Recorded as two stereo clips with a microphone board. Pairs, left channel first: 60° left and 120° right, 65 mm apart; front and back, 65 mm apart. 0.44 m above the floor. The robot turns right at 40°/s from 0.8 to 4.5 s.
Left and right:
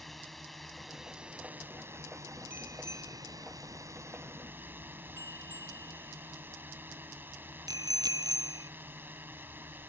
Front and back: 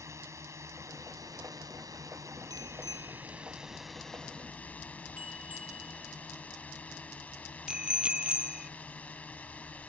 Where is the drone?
145° left; by 9.9 s 65° right.